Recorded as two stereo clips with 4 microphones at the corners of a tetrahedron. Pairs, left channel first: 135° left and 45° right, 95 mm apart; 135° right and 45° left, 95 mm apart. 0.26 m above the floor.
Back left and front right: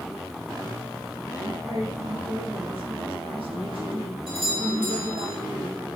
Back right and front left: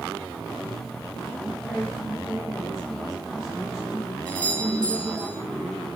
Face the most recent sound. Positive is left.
turn(degrees=-60)